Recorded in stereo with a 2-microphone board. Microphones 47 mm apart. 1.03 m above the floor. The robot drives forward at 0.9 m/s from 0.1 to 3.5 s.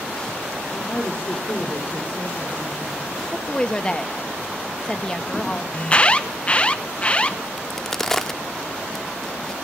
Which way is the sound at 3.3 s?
20° left (ahead or behind).